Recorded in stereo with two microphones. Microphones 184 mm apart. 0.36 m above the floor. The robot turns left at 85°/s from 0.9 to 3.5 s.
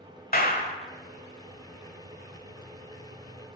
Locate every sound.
0.3 s a clap: 55° left (ahead or behind), 1.2 m